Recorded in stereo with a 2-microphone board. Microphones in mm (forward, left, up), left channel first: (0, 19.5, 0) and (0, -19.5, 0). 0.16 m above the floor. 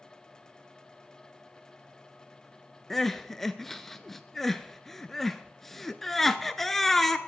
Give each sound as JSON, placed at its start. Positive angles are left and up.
{"t": 2.9, "sound": "crying", "side_deg": 5, "distance_m": 0.6}